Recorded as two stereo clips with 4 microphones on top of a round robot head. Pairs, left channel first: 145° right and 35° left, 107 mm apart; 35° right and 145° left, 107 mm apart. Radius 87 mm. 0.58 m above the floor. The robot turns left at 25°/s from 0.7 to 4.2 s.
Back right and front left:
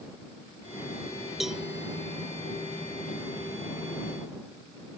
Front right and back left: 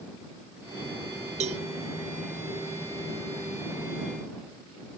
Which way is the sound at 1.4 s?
120° left.